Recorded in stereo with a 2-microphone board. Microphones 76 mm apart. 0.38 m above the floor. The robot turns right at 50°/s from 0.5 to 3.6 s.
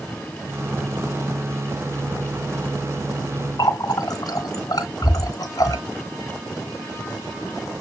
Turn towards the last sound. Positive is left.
turn(degrees=55)  # may be behind; listen again after turning